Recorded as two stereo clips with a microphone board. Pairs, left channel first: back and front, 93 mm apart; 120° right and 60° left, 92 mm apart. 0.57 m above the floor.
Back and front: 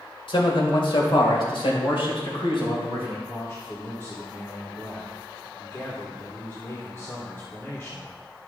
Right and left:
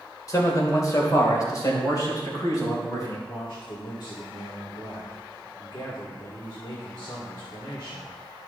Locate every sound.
0.3 s a man speaking: 170° right, 2.0 m; by 3.2 s 165° right, 3.5 m
3.3 s a man speaking: 125° right, 1.9 m